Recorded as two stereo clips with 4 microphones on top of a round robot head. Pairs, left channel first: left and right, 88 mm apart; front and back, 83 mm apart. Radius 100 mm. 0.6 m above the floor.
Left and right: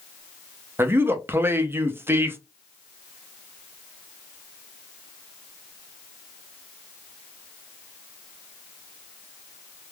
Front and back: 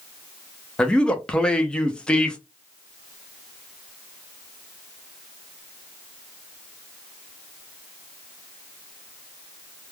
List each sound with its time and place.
0.8 s a man speaking: 70° right, 0.6 m